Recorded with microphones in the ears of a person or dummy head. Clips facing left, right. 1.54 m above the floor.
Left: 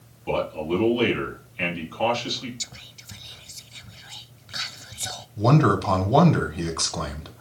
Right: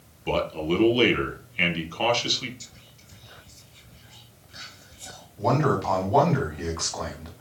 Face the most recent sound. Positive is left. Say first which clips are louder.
# left 3 dB
turn(degrees=55)  # may be behind; listen again after turning